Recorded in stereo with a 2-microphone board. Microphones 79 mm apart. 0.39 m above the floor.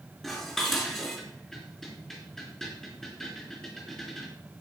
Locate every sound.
0.2 s dishes clattering: 5° left (ahead or behind), 3.5 m